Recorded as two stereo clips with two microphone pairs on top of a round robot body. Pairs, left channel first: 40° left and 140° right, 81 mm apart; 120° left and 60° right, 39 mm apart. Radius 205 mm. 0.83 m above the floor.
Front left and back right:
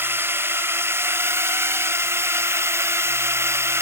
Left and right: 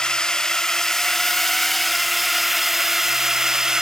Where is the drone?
175° right; by 3.8 s 115° right.